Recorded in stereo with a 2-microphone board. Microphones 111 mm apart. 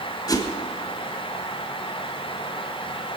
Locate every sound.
0.3 s a whoosh: 35° left (ahead or behind), 1.6 m